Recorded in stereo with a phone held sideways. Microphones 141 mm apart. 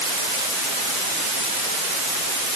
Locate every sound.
Only background noise.